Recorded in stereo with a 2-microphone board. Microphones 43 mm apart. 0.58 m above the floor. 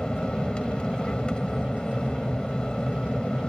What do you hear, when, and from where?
0.0 s an aircraft: 20° left (ahead or behind)